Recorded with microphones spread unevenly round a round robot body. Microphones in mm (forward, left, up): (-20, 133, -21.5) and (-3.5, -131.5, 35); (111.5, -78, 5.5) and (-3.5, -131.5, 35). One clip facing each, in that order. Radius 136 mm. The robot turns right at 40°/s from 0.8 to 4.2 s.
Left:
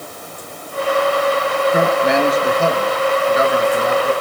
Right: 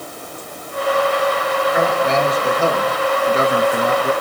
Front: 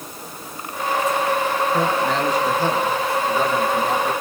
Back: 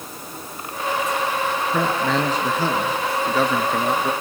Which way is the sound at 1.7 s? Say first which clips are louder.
Left 3 dB, back 1 dB; 150° left.